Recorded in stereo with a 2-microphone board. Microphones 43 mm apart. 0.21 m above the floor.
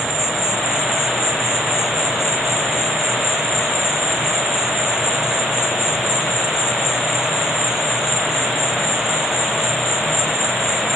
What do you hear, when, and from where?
0.0 s an insect: centre (ahead or behind), 2.5 m